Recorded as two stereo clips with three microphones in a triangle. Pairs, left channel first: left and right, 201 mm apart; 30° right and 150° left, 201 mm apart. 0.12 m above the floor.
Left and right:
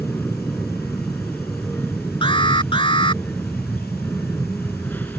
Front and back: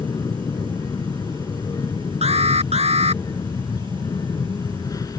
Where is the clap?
I don't hear a clap.